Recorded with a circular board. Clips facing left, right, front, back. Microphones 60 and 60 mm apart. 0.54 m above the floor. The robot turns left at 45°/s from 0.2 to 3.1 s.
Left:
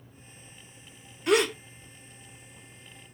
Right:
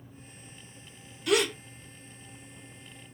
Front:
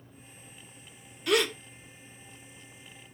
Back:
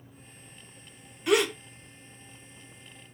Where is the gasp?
125° left, 0.9 m; by 1.5 s 110° left, 0.9 m.